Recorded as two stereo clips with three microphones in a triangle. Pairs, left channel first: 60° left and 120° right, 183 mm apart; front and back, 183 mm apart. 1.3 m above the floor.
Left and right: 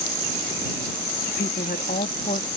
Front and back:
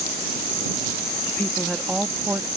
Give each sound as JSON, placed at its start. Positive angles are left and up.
{"t": 1.3, "sound": "a woman speaking", "azimuth_deg": 80}